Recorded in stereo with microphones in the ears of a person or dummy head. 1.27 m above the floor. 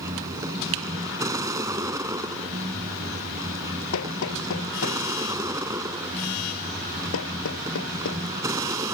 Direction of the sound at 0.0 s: 15° right (ahead or behind).